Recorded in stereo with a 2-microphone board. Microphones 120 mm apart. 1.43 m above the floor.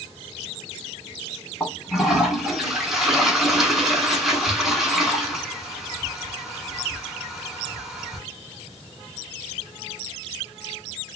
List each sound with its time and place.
1.6 s a toilet flushing: centre (ahead or behind), 2.5 m